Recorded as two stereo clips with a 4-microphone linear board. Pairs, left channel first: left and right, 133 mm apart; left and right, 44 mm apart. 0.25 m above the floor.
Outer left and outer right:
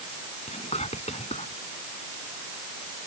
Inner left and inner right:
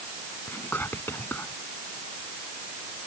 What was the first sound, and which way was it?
Whispering, 55° left (ahead or behind).